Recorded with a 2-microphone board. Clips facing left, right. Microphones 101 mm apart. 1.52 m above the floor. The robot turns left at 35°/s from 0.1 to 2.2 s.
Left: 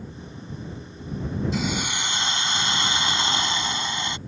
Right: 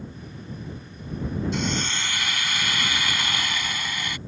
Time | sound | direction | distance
1.5 | a hiss | centre (ahead or behind) | ?